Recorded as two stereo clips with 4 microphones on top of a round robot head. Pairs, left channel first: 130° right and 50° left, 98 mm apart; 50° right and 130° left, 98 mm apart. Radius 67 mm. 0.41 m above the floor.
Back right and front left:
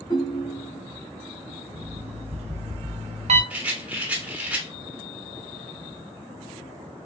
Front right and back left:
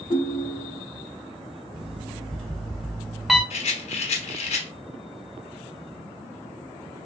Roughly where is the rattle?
Ahead right.